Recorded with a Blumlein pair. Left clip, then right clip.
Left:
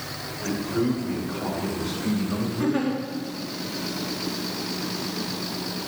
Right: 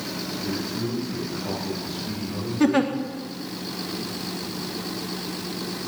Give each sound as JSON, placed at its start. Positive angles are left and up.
{"t": 0.4, "sound": "a man speaking", "azimuth_deg": 65, "distance_m": 7.5}
{"t": 2.6, "sound": "a giggle", "azimuth_deg": -25, "distance_m": 1.6}